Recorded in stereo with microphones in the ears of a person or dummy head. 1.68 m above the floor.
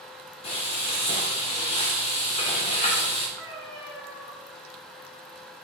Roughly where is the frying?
Left.